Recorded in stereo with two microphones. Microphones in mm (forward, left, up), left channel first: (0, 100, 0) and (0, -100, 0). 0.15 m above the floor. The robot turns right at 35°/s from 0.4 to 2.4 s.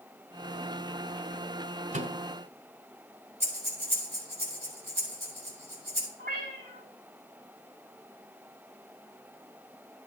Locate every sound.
1.9 s a microwave: 40° right (ahead or behind), 1.0 m; by 2.2 s 35° right (ahead or behind), 1.0 m
3.4 s breathing: 75° right (ahead or behind), 5 m
6.2 s a cat meowing: 60° right (ahead or behind), 6 m